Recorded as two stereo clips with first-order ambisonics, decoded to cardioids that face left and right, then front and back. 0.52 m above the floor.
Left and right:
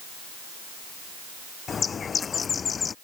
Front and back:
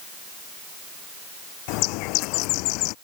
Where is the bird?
20° left.